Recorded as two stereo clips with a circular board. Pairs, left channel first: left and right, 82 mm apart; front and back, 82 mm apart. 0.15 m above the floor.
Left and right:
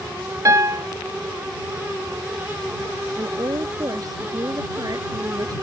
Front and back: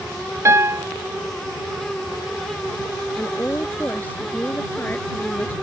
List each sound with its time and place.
0.5 s a piano: 130° right
3.2 s a woman speaking: 65° right